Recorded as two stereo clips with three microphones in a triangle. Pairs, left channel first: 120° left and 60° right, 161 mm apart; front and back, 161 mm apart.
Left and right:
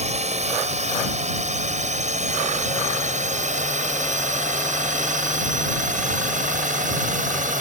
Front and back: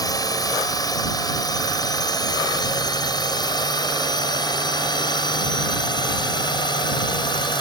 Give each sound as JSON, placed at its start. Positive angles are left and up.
{"t": 0.0, "sound": "a drone", "azimuth_deg": -55}